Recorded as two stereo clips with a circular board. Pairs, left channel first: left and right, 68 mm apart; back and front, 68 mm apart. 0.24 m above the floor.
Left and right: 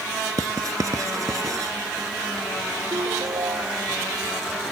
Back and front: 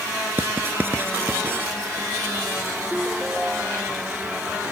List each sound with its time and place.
0.4 s writing: 60° right
2.9 s a ringtone: 90° right